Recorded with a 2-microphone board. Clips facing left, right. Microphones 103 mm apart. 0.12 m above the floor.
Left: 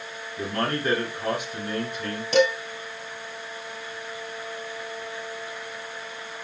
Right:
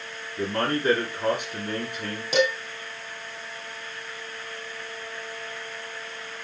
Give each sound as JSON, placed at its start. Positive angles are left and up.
{"t": 0.4, "sound": "a man speaking", "side_deg": -20, "distance_m": 1.7}
{"t": 2.3, "sound": "dishes clattering", "side_deg": -10, "distance_m": 2.0}